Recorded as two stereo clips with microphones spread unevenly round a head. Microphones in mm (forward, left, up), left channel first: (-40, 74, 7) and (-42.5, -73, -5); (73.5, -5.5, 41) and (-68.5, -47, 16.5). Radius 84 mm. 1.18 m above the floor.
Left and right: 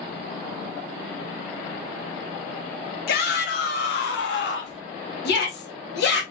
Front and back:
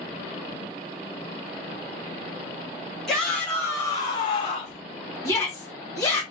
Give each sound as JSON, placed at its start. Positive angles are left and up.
{"t": 3.1, "sound": "a shout", "azimuth_deg": 105, "distance_m": 1.6}
{"t": 5.2, "sound": "a shout", "azimuth_deg": 90, "distance_m": 1.8}